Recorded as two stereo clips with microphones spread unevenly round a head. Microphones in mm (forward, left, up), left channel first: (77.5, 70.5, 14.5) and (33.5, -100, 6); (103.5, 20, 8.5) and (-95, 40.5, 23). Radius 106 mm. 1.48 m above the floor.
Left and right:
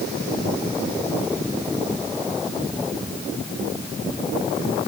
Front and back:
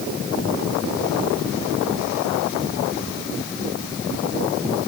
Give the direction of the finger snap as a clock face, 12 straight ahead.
No finger snap in this recording.